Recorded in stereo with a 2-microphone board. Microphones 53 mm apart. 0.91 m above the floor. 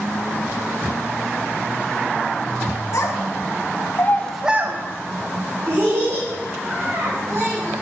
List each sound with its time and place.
2.9 s a child speaking: 85° left, 1.8 m; by 7.7 s 75° right (ahead or behind), 4.5 m